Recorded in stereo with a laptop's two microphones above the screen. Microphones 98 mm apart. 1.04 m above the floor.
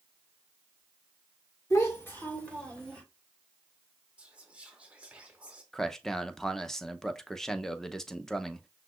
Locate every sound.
1.7 s a child speaking: 30° left (ahead or behind), 1.6 m; by 3.0 s 10° left (ahead or behind), 3 m
4.2 s whispering: 10° right (ahead or behind), 0.9 m
5.7 s a man speaking: 5° left (ahead or behind), 0.6 m